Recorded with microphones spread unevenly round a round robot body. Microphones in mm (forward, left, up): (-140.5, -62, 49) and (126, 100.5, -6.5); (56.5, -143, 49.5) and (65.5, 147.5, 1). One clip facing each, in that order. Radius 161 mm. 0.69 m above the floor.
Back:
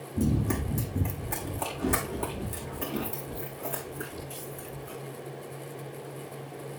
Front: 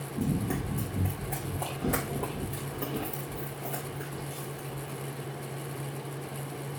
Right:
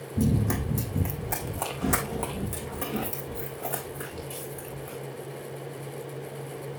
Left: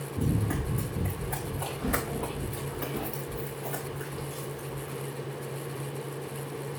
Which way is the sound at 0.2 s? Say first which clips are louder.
Back 3 dB, right 4 dB; 85° right.